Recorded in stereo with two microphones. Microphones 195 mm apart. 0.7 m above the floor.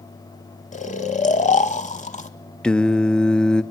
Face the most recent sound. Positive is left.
turn(degrees=5)  # may be behind; listen again after turning